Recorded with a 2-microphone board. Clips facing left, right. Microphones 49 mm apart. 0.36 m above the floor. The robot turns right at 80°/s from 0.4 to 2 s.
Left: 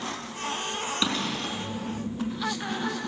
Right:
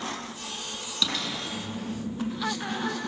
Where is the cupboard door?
30° left, 4.5 m; by 1.6 s 75° left, 4.5 m.